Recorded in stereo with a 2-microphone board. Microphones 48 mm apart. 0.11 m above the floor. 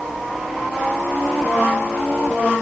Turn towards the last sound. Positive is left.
No sound to turn to.